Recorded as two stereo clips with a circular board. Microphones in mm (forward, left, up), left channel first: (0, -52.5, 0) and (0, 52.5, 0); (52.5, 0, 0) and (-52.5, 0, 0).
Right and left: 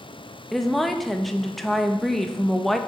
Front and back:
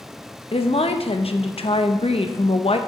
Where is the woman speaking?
Straight ahead, 0.6 m.